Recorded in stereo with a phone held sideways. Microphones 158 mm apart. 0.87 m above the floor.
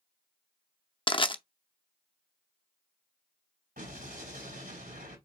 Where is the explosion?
70° right (ahead or behind), 3.5 m.